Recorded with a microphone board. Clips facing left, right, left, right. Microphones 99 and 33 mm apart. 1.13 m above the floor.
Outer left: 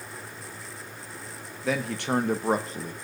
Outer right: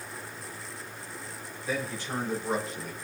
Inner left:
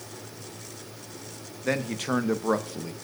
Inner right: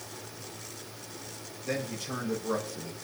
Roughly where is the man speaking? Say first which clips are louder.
Outer left 6 dB, inner left 6 dB; left.